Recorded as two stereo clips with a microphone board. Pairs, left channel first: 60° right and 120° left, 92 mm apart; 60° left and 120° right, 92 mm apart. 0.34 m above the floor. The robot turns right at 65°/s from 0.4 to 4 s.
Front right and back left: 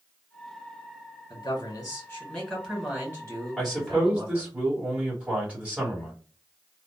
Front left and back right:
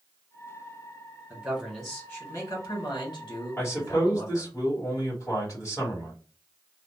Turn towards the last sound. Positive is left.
turn(degrees=55)